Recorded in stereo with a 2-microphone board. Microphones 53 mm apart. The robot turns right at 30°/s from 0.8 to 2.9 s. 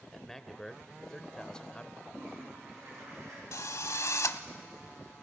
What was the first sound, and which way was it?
A man speaking, 5° left (ahead or behind).